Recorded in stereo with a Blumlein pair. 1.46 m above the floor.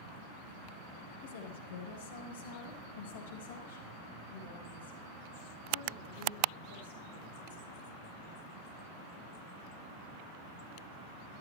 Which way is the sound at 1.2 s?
55° left.